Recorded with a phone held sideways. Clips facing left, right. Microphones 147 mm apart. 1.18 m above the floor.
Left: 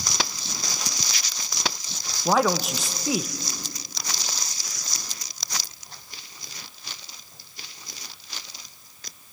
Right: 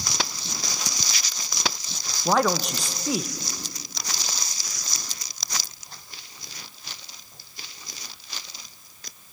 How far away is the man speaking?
About 0.9 m.